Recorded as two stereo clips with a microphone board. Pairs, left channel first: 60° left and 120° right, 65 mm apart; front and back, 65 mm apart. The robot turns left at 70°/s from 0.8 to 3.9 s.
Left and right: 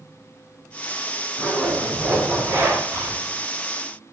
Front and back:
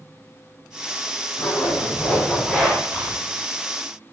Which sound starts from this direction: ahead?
A zipper, at 1.4 s.